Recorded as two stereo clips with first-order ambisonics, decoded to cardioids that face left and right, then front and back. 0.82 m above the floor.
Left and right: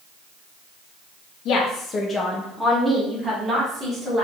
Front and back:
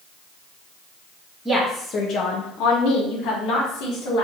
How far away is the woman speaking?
About 0.6 m.